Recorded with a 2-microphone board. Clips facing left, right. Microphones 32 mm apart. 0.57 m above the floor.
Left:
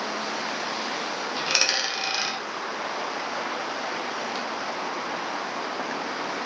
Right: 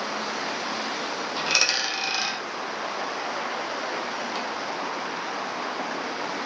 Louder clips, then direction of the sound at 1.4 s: Right 1 dB; 5° left (ahead or behind).